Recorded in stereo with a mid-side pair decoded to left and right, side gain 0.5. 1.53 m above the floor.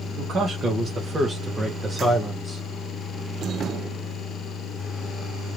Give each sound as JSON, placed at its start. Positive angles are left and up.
{"t": 0.1, "sound": "a man speaking", "azimuth_deg": -60, "distance_m": 1.2}